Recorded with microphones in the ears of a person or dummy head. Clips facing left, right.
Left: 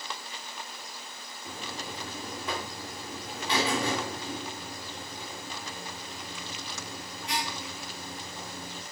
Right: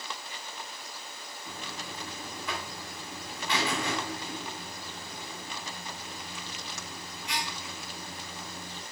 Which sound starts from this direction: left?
A buzzer, at 1.4 s.